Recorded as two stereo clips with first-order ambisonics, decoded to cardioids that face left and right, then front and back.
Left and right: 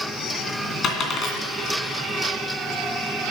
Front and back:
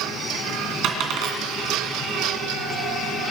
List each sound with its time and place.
0.8 s a dropped coin: 145° left, 2.5 m